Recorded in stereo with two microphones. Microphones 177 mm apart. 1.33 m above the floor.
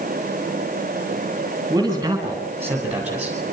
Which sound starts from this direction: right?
A man speaking, at 1.7 s.